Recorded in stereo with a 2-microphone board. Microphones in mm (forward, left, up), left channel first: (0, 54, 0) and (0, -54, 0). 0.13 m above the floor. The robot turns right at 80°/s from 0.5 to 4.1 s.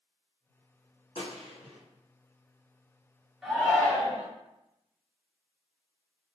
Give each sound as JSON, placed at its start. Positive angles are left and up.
{"t": 1.1, "sound": "a gunshot", "azimuth_deg": 115, "distance_m": 1.9}
{"t": 3.4, "sound": "a shout", "azimuth_deg": 0, "distance_m": 2.0}